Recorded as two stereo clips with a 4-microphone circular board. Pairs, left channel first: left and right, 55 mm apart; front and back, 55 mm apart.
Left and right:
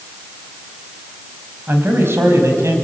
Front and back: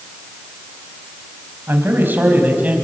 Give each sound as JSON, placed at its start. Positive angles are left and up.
{"t": 1.7, "sound": "a man speaking", "azimuth_deg": -135, "distance_m": 4.5}